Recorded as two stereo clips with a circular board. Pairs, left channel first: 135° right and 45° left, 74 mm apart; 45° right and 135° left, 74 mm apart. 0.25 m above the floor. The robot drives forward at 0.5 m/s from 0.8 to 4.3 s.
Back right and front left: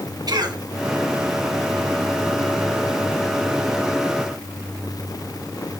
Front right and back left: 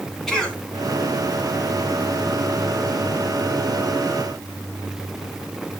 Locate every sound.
0.3 s a cough: 40° left, 1.8 m